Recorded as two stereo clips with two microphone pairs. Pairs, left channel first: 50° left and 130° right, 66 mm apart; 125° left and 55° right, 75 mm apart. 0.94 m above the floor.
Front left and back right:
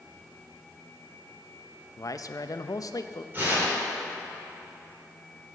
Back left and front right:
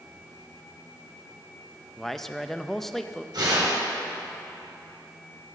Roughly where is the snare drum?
No snare drum in this recording.